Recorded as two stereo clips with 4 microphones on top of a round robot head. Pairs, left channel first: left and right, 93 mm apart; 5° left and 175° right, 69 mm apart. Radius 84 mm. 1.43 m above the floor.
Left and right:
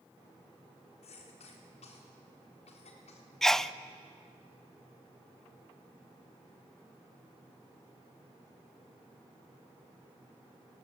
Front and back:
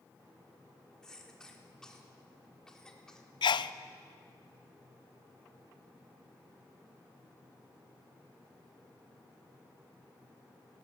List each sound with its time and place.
1.0 s a cough: 85° left, 3.5 m
3.4 s a sneeze: 5° left, 0.7 m